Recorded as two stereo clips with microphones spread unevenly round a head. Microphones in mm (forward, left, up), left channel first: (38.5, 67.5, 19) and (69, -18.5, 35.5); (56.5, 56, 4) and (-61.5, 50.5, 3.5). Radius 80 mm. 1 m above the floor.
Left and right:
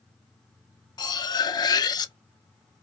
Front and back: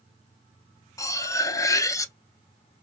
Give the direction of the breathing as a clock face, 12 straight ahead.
No breathing in this recording.